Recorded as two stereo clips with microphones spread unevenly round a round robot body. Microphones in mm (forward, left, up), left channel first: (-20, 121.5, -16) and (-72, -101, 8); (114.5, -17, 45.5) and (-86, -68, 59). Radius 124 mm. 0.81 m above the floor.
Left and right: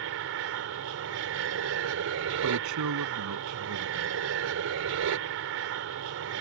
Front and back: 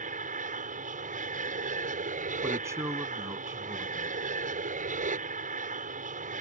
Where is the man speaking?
90° right.